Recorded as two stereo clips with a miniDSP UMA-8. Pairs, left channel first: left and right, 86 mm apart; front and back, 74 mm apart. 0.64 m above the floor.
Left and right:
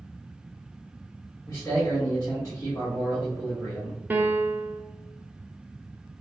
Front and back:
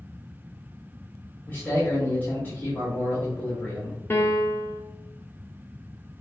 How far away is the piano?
About 0.7 m.